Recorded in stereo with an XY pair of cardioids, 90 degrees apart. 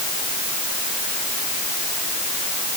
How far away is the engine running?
No engine running in this recording.